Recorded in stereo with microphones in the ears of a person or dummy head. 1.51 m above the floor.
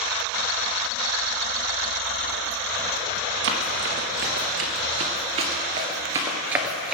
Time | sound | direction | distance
3.4 | running footsteps | 55° right (ahead or behind) | 2.5 m